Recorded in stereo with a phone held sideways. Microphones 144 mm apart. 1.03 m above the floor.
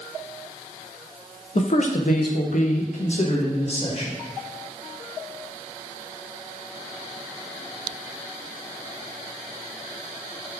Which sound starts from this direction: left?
A man speaking, at 1.6 s.